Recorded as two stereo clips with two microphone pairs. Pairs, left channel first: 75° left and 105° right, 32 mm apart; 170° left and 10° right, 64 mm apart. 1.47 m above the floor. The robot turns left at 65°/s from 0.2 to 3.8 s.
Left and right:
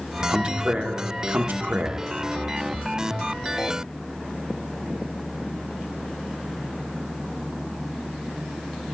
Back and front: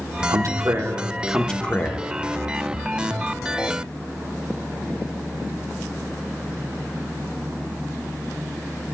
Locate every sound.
0.3 s a man speaking: 35° right, 1.3 m; by 2.0 s 145° right, 1.3 m